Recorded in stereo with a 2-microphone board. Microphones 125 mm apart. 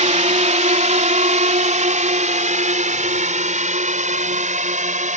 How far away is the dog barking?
No dog barking in this recording.